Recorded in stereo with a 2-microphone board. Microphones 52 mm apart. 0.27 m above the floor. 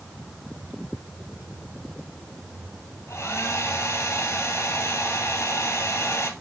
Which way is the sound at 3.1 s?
60° left (ahead or behind).